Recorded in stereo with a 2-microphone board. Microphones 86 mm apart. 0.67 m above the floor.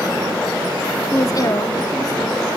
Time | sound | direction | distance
1.1 | a woman speaking | 35° left (ahead or behind) | 0.9 m